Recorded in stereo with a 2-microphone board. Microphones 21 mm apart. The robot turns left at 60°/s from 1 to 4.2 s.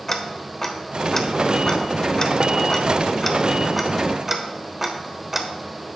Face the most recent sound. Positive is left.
turn(degrees=-15)  # may be behind; listen again after turning